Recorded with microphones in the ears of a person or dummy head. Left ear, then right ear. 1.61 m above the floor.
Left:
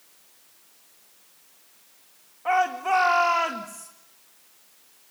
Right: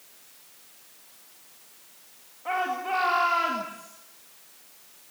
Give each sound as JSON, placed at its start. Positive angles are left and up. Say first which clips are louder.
{"t": 2.5, "sound": "a shout", "louder": "left 5 dB", "side_deg": 45, "distance_m": 2.0}